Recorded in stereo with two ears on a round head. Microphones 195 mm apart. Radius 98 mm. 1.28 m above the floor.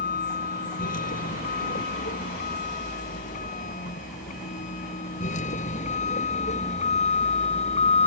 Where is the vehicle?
40° left (ahead or behind); by 8.1 s 30° left (ahead or behind).